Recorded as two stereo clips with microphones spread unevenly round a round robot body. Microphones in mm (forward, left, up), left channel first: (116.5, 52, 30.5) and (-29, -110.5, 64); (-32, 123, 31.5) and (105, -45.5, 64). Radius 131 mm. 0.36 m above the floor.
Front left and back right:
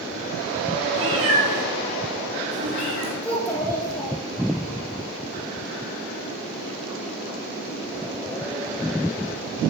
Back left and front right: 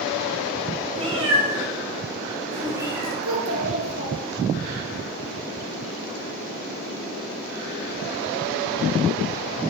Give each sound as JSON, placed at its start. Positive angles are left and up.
{"t": 1.0, "sound": "a cat meowing", "azimuth_deg": -120, "distance_m": 4.5}
{"t": 3.2, "sound": "a child speaking", "azimuth_deg": -30, "distance_m": 5.0}